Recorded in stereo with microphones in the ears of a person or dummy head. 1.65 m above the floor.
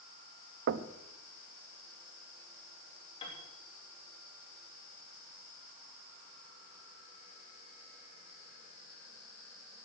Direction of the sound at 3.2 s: 25° left (ahead or behind).